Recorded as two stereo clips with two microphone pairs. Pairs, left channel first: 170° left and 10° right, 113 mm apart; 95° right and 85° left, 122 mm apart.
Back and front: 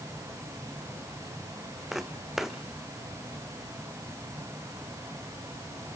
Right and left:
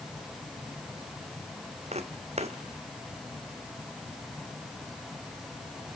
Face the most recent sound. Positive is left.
turn(degrees=80)